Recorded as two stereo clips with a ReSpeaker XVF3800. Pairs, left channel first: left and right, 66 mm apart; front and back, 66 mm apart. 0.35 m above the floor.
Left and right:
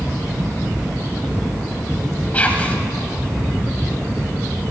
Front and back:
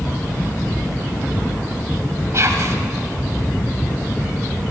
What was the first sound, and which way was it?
Whispering, 155° left.